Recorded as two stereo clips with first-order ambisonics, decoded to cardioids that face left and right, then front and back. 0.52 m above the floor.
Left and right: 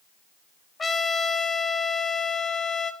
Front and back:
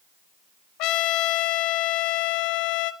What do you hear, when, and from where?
0.8 s a trumpet: 15° left, 0.7 m